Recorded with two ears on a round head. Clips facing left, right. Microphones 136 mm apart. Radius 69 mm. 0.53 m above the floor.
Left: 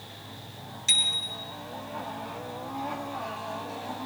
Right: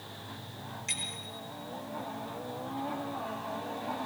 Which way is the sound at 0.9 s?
40° left (ahead or behind).